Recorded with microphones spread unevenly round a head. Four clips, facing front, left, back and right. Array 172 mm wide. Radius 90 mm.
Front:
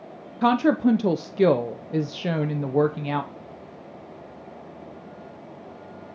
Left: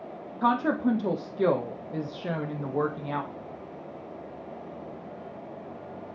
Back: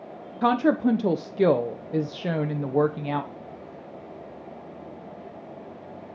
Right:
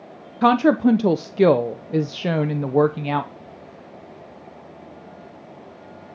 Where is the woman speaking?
50° right, 0.6 m.